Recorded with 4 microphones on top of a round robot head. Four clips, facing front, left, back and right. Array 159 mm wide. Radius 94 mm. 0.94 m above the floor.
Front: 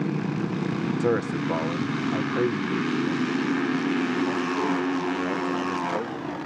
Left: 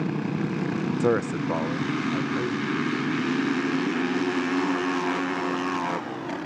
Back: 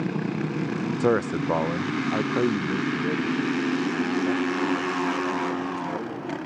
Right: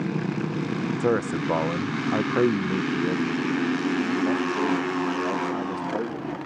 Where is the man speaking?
165° left, 0.6 m; by 6.4 s 105° right, 3 m.